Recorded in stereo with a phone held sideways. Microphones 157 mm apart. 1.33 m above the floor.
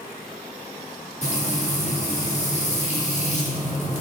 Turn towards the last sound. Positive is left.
turn(degrees=45)  # may be behind; listen again after turning